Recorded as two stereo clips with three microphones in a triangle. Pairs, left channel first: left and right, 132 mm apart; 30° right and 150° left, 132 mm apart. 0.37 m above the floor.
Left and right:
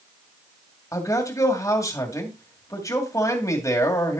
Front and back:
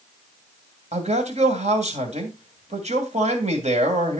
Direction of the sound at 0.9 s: 150° left.